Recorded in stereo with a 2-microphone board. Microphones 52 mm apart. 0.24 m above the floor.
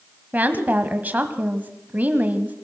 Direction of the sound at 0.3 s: 30° right (ahead or behind).